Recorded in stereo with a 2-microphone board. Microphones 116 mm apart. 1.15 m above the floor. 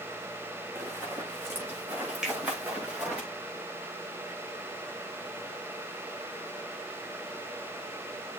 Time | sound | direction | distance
0.8 | running footsteps | 20° right (ahead or behind) | 7 m
2.2 | a finger snap | 5° right (ahead or behind) | 5.5 m